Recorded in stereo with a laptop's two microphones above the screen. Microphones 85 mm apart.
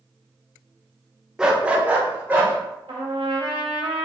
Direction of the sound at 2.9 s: 80° right.